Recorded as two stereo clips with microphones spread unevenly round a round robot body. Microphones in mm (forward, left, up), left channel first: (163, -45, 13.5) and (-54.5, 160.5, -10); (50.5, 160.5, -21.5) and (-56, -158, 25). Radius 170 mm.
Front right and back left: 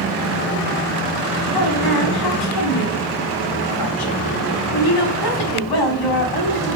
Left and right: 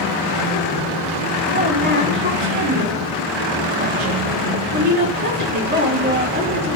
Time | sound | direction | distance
1.5 | a woman speaking | 45° right | 6.5 m